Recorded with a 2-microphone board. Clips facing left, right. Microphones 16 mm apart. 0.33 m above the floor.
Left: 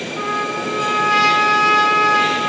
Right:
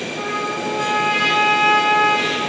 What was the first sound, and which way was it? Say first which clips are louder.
A trumpet: left 3 dB; 55° left (ahead or behind).